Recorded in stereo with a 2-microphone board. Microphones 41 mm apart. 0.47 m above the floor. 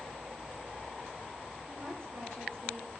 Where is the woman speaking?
85° right, 8 m.